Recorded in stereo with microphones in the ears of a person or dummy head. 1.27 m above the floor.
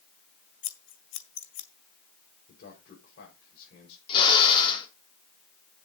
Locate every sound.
0.6 s scissors: 40° left (ahead or behind), 1.8 m
2.5 s a man speaking: 50° left (ahead or behind), 5 m
4.1 s a drill: 30° left (ahead or behind), 4 m